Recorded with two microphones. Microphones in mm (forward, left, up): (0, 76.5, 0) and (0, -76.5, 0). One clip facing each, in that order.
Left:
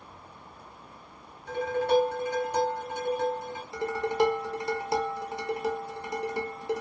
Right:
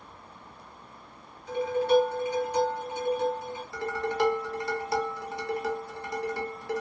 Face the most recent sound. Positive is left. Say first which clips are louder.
# left 2 dB
turn(degrees=20)  # may be behind; listen again after turning